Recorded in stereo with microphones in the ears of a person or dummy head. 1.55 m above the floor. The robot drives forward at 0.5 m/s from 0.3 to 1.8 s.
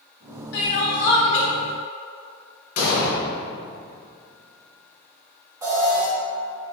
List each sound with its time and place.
0.5 s crying: 65° left (ahead or behind), 1.6 m; by 1.5 s 80° left, 1.5 m
2.8 s an explosion: 50° left (ahead or behind), 1.3 m
5.6 s an alarm: 15° right (ahead or behind), 1.8 m